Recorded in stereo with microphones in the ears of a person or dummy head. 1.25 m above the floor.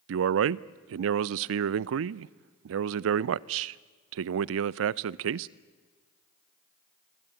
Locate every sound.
0.1 s a man speaking: 70° right (ahead or behind), 0.5 m